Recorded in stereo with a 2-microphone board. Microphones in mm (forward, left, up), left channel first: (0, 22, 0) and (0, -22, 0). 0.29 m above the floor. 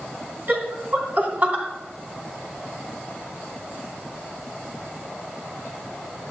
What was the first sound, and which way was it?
Laughter, 50° right (ahead or behind).